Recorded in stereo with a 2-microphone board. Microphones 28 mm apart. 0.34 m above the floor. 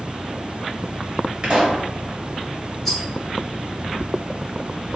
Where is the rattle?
15° left (ahead or behind), 1.1 m.